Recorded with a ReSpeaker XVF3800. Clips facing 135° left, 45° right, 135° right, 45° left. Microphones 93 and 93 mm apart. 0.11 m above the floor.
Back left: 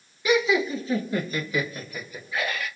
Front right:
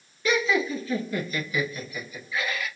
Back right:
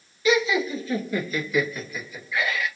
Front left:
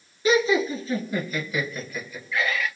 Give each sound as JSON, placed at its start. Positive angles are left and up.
{"t": 0.2, "sound": "laughter", "azimuth_deg": 65, "distance_m": 1.6}